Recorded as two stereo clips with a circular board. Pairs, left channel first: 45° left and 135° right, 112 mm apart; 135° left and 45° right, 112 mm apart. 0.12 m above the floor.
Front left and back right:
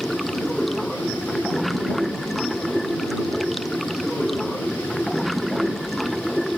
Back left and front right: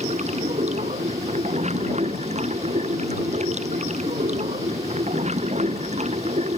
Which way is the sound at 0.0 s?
45° right.